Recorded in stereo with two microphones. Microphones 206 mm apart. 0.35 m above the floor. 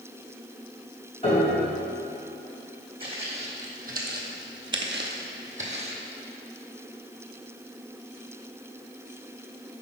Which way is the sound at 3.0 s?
25° right (ahead or behind).